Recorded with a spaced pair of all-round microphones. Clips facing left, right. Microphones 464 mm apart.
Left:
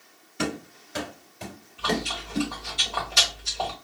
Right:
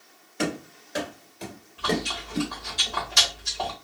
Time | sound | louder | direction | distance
0.4 | running footsteps | right 1 dB | 30° left (ahead or behind) | 1.7 m
1.8 | chewing | right 1 dB | 35° right (ahead or behind) | 1.0 m